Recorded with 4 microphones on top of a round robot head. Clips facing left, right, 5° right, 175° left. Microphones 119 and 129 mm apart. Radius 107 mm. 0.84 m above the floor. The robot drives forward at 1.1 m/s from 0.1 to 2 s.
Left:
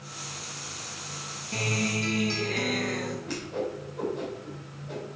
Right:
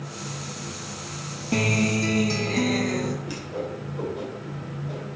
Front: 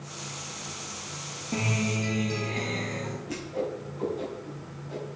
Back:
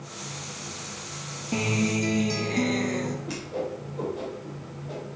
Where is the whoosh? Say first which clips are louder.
Right 1 dB, even; 170° right, 4 m.